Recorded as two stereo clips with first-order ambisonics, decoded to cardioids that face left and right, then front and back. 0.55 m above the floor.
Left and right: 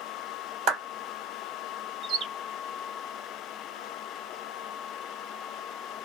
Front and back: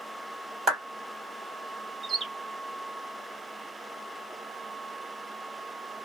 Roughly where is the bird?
Behind right.